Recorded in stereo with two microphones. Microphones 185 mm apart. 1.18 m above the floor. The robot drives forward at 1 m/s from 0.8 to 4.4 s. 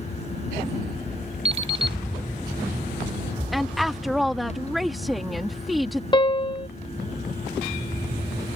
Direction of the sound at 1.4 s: 30° right (ahead or behind).